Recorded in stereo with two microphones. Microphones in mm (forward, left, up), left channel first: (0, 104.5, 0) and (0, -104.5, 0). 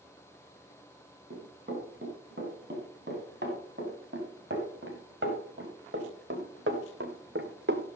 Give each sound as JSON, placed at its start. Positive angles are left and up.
{"t": 1.3, "sound": "running footsteps", "side_deg": -55, "distance_m": 7.0}